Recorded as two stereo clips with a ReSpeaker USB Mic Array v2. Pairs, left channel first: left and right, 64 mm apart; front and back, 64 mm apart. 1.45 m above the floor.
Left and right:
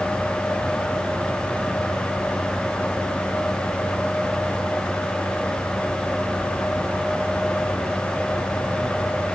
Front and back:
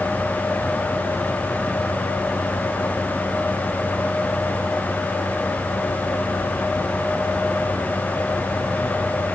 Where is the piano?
No piano in this recording.